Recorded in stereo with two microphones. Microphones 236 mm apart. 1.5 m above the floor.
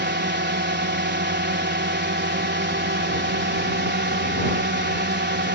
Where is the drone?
50° right (ahead or behind).